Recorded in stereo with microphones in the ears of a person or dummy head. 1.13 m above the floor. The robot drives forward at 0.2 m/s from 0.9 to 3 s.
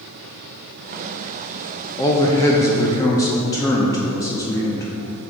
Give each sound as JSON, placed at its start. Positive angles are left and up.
{"t": 2.0, "sound": "a man speaking", "side_deg": 10, "distance_m": 0.5}